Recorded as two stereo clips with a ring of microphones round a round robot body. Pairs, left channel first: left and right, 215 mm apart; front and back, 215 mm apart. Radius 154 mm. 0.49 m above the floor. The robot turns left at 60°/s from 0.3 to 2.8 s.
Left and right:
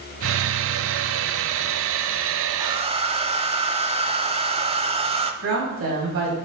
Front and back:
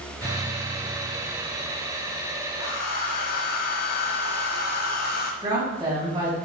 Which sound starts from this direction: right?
A woman speaking, at 5.4 s.